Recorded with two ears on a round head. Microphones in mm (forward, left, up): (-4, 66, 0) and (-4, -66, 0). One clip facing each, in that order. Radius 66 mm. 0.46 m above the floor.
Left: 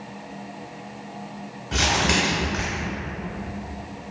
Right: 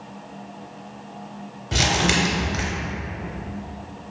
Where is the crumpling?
35° right (ahead or behind), 0.6 m.